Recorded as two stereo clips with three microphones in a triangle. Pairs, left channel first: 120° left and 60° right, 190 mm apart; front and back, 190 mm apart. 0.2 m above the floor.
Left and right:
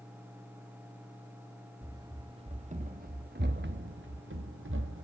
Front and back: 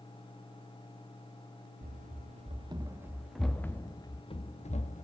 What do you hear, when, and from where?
1.8 s running footsteps: 135° right, 1.3 m; by 5.0 s 50° right, 1.6 m